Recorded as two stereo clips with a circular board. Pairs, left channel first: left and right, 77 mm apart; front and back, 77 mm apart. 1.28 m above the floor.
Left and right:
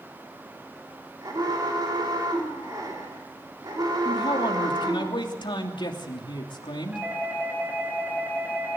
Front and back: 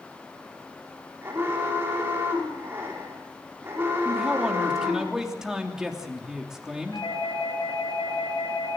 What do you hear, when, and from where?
1.2 s an alarm: 120° right, 5.5 m
4.0 s a man speaking: 95° left, 3 m
6.9 s a doorbell: 20° right, 9.5 m